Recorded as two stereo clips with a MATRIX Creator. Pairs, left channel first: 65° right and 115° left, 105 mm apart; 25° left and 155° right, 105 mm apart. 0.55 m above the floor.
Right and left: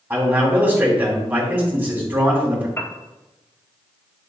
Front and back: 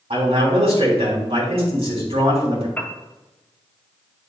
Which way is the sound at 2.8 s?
35° right.